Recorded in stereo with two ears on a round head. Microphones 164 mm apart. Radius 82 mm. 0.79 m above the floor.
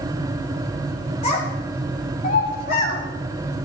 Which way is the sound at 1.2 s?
35° left (ahead or behind).